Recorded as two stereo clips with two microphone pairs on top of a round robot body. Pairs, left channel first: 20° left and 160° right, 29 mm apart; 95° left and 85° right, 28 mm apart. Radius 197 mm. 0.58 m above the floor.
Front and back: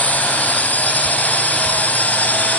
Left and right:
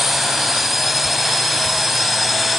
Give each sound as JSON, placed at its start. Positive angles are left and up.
{"t": 0.0, "sound": "a drone", "azimuth_deg": 0}